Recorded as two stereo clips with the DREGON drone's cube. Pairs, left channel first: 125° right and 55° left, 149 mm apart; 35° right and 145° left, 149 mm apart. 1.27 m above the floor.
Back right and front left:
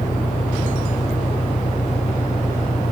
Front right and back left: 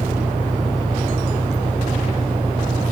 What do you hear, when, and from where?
0.0 s an engine running: 160° right